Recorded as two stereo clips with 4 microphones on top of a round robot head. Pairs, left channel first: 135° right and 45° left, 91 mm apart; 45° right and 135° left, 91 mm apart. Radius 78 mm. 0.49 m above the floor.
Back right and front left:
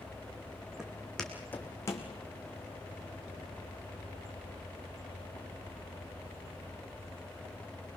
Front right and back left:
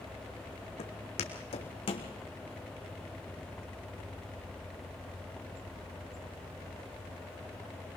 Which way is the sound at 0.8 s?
35° right.